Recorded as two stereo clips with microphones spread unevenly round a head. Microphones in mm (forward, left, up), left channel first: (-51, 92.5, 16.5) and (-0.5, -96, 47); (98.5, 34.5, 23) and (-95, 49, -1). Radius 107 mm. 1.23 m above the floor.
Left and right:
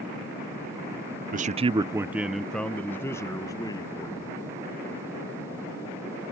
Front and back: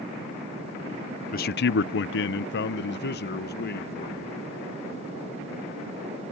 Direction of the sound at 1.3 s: 40° right.